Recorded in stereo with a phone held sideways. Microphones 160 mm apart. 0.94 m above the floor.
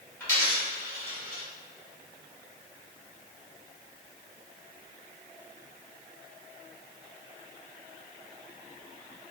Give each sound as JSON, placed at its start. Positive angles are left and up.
{"t": 0.2, "sound": "a dropped coin", "side_deg": 15, "distance_m": 1.4}